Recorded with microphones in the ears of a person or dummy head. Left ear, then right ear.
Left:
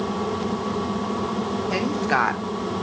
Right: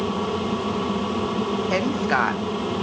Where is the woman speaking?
35° right (ahead or behind), 1.3 m; by 2.7 s 30° left (ahead or behind), 1.3 m.